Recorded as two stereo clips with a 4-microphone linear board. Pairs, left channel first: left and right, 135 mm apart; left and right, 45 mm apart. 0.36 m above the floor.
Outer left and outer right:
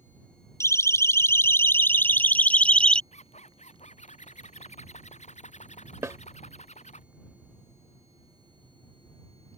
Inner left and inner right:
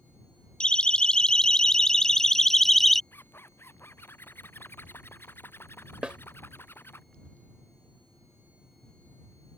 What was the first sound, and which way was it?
A siren, 20° left (ahead or behind).